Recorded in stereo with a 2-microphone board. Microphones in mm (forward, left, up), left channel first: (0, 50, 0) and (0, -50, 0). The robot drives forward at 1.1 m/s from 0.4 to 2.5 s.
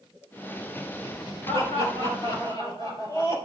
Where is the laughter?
65° left (ahead or behind), 3.5 m; by 3.4 s 55° left (ahead or behind), 3.5 m.